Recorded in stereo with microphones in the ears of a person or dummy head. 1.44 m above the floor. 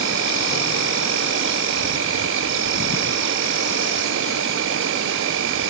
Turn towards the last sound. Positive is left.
turn(degrees=-65)  # may be behind; listen again after turning